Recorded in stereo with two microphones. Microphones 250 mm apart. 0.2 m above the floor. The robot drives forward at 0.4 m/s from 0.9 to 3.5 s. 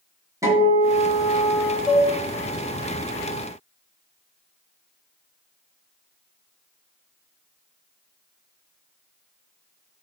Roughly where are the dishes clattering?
Centre.